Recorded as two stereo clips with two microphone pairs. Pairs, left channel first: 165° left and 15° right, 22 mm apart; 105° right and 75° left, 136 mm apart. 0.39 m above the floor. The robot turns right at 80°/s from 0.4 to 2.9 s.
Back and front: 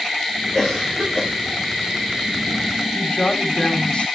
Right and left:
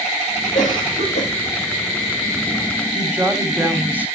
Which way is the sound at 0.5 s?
125° right.